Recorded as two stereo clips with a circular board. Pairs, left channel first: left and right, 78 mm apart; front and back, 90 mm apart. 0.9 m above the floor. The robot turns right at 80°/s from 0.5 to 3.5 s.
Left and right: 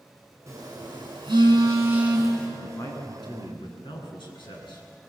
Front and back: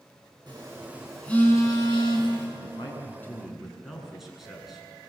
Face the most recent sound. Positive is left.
turn(degrees=90)